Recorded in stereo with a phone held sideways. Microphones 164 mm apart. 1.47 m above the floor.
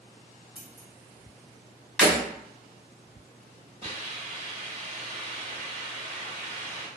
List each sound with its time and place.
0.6 s scissors: 30° right (ahead or behind), 1.1 m
2.0 s breaking glass: centre (ahead or behind), 1.4 m
3.8 s a hiss: 40° right (ahead or behind), 1.6 m